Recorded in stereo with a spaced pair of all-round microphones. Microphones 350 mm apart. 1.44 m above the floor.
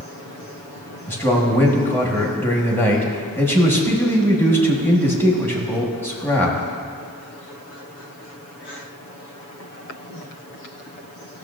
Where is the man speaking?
5° left (ahead or behind), 1.3 m.